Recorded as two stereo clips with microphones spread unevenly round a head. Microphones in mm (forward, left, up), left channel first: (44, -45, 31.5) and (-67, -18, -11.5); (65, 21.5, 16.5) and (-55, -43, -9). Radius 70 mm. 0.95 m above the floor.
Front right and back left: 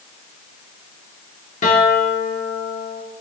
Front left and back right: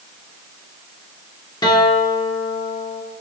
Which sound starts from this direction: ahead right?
A guitar, at 1.6 s.